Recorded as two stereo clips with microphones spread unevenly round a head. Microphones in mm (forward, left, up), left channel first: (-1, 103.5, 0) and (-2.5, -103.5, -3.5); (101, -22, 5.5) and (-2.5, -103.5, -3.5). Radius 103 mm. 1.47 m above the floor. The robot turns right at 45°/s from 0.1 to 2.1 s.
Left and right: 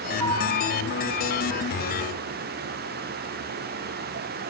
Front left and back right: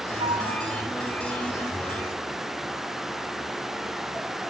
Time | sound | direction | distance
0.2 | a flute | 100° right | 8.5 m